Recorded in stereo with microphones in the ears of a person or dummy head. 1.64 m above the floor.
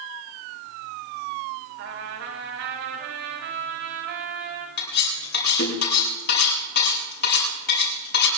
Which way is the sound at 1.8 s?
60° right (ahead or behind).